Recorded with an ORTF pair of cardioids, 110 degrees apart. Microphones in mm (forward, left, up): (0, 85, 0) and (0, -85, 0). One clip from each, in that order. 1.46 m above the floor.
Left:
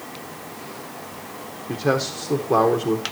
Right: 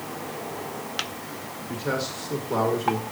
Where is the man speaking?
60° left, 1.6 m.